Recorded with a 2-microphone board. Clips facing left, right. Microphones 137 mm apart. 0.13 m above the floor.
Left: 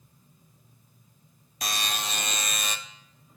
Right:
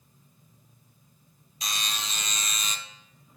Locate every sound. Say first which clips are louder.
1.6 s a buzzer: left 4 dB; 60° left (ahead or behind), 0.5 m